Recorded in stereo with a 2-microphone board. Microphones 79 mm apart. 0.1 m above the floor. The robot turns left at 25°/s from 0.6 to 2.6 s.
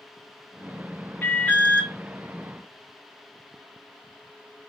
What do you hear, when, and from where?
1.2 s an alarm: 25° left (ahead or behind), 1.2 m; by 1.9 s 15° left (ahead or behind), 1.2 m